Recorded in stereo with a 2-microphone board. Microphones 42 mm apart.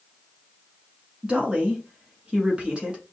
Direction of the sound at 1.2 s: 25° right (ahead or behind).